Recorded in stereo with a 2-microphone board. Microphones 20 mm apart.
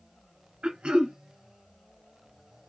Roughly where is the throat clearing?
Right.